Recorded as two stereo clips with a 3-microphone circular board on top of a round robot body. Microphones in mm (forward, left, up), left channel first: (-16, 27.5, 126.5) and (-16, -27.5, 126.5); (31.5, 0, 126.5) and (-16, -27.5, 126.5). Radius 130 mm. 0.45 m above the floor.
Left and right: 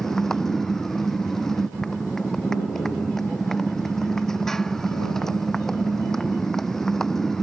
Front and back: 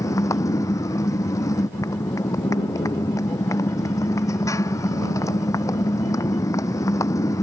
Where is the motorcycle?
5° left.